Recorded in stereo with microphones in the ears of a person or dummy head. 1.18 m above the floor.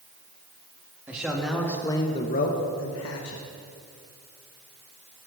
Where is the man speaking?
5° right (ahead or behind), 2.5 m; by 3.4 s 75° left (ahead or behind), 2.0 m.